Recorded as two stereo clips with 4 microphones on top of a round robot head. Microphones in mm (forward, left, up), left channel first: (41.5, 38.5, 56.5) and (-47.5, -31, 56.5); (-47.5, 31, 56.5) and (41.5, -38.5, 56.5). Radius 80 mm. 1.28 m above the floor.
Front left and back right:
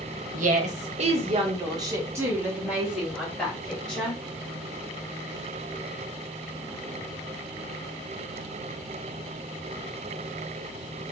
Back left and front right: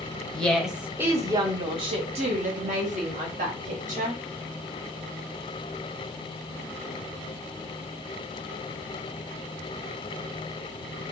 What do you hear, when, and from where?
0.3 s a woman speaking: 135° right, 0.8 m; by 4.2 s 45° right, 1.8 m